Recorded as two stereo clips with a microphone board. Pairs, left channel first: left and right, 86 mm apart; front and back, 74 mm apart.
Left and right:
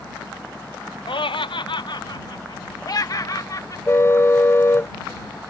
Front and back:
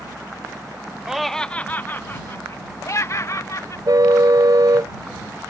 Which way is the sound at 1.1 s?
100° left.